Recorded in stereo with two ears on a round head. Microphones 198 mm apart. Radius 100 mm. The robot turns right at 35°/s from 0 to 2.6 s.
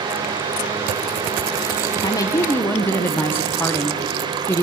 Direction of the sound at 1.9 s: 20° left (ahead or behind).